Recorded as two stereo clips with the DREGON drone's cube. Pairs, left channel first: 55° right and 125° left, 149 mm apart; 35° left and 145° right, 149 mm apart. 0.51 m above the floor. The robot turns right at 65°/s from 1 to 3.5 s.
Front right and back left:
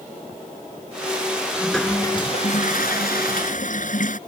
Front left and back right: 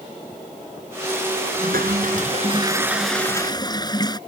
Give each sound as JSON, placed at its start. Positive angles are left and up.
{"t": 1.6, "sound": "a toilet flushing", "azimuth_deg": -150}